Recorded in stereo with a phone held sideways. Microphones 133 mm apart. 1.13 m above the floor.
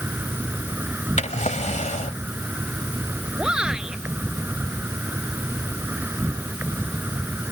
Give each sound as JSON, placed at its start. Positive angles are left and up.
{"t": 0.0, "sound": "an insect", "side_deg": -15}
{"t": 1.2, "sound": "a drawer", "side_deg": 65}
{"t": 3.4, "sound": "a shout", "side_deg": -5}